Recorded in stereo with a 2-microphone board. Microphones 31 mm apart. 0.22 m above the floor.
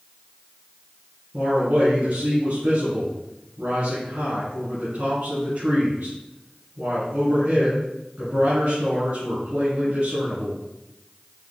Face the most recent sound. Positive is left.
turn(degrees=-55)  # may be behind; listen again after turning